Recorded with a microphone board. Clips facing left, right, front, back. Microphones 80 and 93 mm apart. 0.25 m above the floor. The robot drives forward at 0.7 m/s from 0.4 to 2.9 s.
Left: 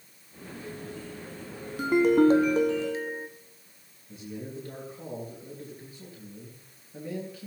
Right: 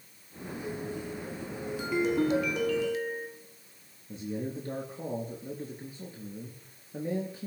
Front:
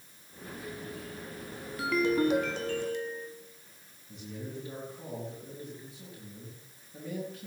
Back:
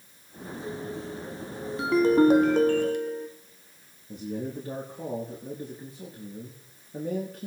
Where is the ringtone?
120° left, 0.9 m; by 3.3 s 150° left, 1.4 m.